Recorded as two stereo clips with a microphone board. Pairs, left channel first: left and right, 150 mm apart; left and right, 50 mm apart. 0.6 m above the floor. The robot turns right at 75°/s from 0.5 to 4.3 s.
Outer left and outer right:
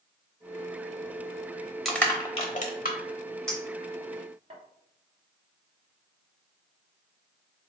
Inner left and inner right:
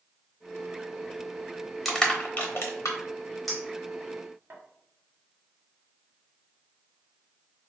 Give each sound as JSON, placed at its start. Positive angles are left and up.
{"t": 1.9, "sound": "crushing", "side_deg": 0, "distance_m": 0.8}
{"t": 3.5, "sound": "a clink", "side_deg": 5, "distance_m": 1.1}